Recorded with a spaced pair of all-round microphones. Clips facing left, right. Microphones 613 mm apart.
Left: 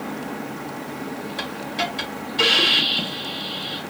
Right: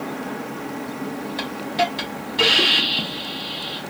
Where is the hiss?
5° right (ahead or behind), 1.1 m.